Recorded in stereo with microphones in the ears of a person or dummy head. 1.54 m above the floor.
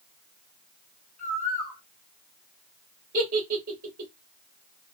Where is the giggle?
50° right (ahead or behind), 2 m.